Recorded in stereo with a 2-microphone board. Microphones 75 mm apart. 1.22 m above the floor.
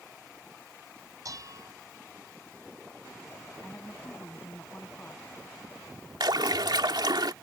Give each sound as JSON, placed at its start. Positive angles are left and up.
{"t": 1.2, "sound": "dishes clattering", "side_deg": -55}
{"t": 3.6, "sound": "a woman speaking", "side_deg": 30}
{"t": 6.2, "sound": "a splash", "side_deg": -75}